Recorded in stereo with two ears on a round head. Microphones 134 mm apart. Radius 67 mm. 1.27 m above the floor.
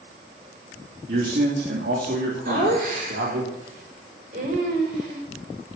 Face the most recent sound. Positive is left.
turn(degrees=-65)  # may be behind; listen again after turning